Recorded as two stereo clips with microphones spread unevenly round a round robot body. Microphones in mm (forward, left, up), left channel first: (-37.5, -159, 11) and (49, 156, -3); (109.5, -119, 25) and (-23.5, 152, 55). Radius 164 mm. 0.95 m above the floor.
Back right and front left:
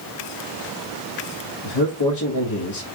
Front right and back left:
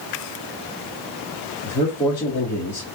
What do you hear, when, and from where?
1.6 s a man speaking: 140° right, 1.3 m